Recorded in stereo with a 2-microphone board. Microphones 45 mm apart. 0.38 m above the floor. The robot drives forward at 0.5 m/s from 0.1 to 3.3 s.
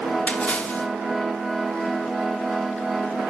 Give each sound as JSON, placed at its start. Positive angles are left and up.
{"t": 0.3, "sound": "a splash", "side_deg": 30, "distance_m": 1.3}